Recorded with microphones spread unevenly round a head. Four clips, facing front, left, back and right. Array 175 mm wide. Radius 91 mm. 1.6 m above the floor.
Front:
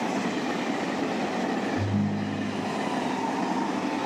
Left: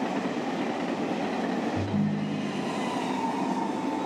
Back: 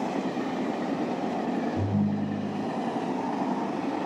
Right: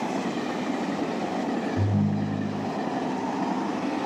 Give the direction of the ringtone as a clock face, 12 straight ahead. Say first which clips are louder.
Right 2 dB, even; 8 o'clock.